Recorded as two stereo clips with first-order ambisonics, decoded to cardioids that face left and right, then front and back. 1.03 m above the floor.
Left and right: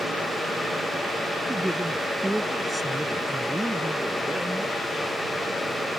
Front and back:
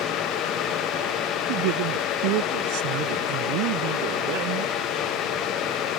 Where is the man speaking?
175° right.